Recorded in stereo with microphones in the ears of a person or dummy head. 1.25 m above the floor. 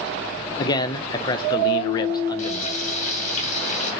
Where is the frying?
60° left (ahead or behind), 2.5 m.